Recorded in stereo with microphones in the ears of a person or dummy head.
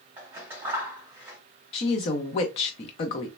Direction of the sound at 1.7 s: 30° left (ahead or behind).